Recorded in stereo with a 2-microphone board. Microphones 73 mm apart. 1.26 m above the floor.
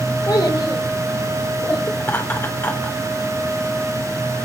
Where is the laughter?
30° left (ahead or behind), 3.5 m.